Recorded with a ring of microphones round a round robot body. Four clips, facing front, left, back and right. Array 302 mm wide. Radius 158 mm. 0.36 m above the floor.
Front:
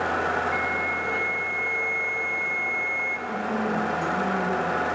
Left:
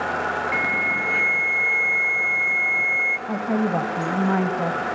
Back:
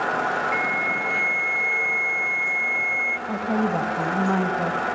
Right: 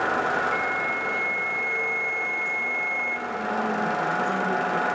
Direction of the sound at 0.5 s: 110° left.